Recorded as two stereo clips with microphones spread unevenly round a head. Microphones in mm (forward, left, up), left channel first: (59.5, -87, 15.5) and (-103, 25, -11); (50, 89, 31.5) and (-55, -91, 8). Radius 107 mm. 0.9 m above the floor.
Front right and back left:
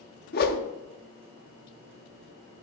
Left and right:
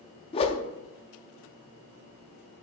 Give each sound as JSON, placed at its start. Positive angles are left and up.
{"t": 0.3, "sound": "a whoosh", "azimuth_deg": 0, "distance_m": 0.5}